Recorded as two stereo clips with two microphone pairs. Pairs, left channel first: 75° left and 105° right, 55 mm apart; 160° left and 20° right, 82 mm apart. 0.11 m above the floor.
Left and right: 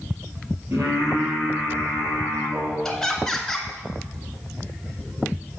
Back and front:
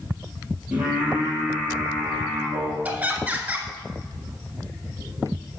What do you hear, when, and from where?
0.7 s singing: 90° right, 3 m
2.9 s laughter: 5° left, 1.1 m